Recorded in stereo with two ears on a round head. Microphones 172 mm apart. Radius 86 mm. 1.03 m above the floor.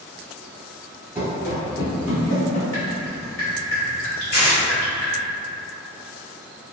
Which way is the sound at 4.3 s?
50° left (ahead or behind).